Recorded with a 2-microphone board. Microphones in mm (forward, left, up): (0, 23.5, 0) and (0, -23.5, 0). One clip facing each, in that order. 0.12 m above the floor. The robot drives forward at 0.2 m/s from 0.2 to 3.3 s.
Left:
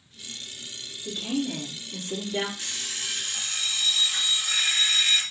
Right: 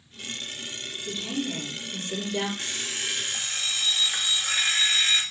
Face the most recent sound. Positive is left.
turn(degrees=-45)  # may be behind; listen again after turning